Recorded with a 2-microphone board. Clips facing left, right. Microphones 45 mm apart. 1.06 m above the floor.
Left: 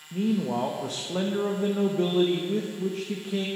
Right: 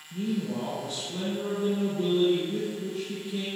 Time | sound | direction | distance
0.1 | a man speaking | 70° left (ahead or behind) | 1.0 m